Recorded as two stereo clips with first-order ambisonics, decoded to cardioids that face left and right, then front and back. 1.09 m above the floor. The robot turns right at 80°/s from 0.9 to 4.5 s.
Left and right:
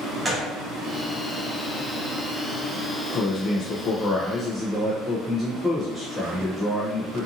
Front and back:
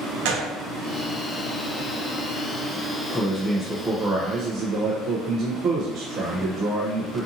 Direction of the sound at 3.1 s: 65° left.